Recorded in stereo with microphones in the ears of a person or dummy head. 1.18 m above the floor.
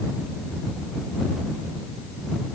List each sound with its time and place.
Only background noise.